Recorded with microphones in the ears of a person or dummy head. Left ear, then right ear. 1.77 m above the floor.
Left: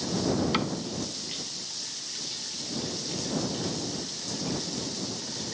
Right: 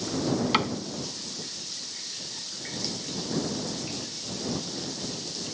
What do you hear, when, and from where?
0.5 s a cupboard door: 25° right (ahead or behind)